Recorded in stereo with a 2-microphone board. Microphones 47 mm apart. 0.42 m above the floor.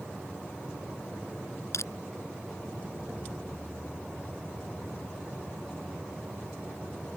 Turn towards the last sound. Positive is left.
turn(degrees=75)  # may be behind; listen again after turning